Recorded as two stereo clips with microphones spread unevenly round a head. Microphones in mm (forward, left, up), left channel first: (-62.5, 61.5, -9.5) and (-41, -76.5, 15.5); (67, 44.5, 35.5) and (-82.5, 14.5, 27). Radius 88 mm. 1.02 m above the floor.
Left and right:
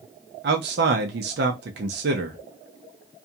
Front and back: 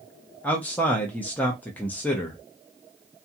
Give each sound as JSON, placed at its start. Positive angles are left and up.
{"t": 0.4, "sound": "a man speaking", "azimuth_deg": -70, "distance_m": 0.6}